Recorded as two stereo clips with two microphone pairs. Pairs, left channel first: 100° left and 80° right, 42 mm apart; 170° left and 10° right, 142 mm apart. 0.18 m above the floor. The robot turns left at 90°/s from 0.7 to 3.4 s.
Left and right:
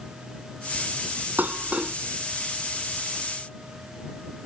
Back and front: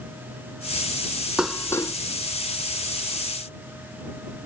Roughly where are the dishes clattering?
Right.